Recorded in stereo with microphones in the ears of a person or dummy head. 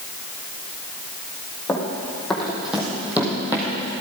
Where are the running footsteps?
Centre (ahead or behind), 3 m; by 3.9 s 25° right (ahead or behind), 3 m.